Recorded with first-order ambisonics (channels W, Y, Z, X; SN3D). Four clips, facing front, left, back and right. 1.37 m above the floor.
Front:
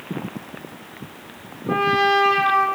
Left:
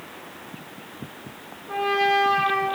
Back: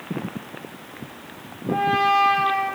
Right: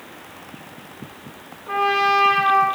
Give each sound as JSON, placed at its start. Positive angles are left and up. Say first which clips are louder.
{"t": 1.7, "sound": "a trumpet", "louder": "right 3 dB, front 1 dB", "azimuth_deg": -55, "distance_m": 7.5}